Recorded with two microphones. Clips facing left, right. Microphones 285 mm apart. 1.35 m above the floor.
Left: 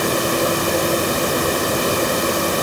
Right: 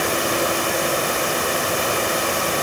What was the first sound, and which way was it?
Only background noise.